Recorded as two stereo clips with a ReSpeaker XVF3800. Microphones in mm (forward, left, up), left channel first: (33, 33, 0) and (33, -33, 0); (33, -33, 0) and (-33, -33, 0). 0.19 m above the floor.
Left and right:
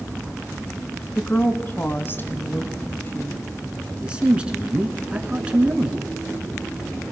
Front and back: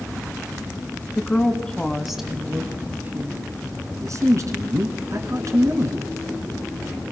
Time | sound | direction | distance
1.1 | a woman speaking | 50° left | 1.8 m
4.0 | a man speaking | 160° right | 2.5 m